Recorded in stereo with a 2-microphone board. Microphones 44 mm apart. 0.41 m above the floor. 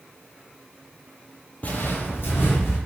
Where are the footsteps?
40° left (ahead or behind), 0.7 m; by 2.8 s 70° left (ahead or behind), 1.9 m.